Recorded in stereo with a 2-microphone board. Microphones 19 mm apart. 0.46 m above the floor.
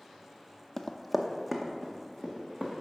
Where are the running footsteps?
20° left (ahead or behind), 0.6 m; by 2.7 s 15° right (ahead or behind), 2.5 m.